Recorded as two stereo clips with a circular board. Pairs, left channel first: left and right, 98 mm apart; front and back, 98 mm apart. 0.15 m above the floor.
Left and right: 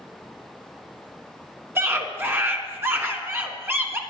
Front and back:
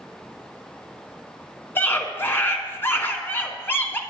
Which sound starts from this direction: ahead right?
A scream, at 1.8 s.